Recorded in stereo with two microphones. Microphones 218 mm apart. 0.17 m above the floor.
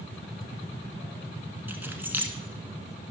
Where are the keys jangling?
10° right (ahead or behind), 1.1 m.